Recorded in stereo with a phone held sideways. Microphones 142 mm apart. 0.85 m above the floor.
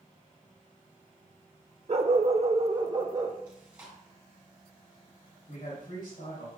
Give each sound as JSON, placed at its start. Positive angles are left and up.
{"t": 1.9, "sound": "a dog barking", "side_deg": -45, "distance_m": 0.6}
{"t": 3.5, "sound": "chewing", "side_deg": -10, "distance_m": 3.5}
{"t": 5.5, "sound": "a man speaking", "side_deg": 75, "distance_m": 4.0}